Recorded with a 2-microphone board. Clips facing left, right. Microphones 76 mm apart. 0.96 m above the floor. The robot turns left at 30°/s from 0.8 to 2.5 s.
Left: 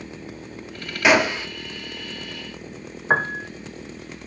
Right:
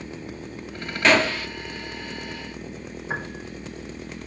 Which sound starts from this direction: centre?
A gunshot, at 1.0 s.